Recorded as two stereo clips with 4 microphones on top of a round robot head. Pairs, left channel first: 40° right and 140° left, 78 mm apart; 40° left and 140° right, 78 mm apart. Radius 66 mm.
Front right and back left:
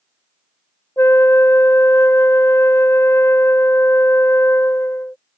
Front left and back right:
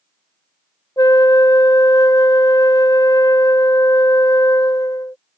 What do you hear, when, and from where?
1.0 s a flute: 10° left